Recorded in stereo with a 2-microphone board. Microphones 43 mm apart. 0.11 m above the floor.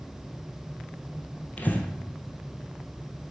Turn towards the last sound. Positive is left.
turn(degrees=35)  # may be behind; listen again after turning